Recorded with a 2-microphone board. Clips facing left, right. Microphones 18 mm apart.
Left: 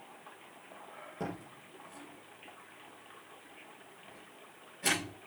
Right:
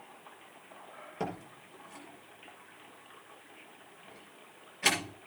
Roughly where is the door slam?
Right.